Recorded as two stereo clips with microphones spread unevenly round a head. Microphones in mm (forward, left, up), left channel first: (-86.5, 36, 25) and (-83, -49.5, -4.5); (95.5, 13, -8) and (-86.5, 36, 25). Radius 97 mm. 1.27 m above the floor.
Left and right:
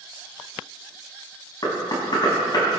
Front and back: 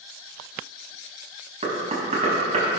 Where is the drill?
I don't hear a drill.